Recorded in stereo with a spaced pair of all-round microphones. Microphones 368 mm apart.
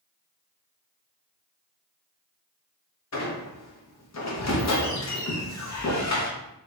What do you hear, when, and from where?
3.1 s a squeak: 45° left (ahead or behind), 0.5 m